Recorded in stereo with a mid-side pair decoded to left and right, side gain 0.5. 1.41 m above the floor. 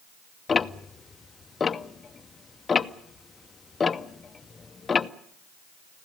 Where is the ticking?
30° left, 0.9 m.